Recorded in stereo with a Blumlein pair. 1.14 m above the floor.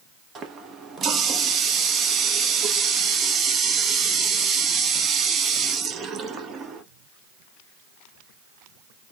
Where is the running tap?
25° right, 0.7 m.